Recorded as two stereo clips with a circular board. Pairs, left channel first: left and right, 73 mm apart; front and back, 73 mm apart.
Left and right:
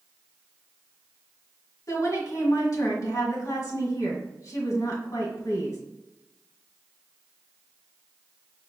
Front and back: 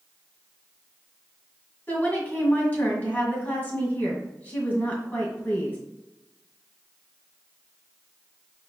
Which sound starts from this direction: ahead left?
A woman speaking, at 1.9 s.